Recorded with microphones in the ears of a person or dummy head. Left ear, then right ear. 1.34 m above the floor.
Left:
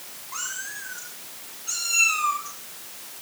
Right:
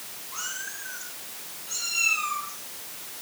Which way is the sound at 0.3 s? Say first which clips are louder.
Left 2 dB; 30° left (ahead or behind).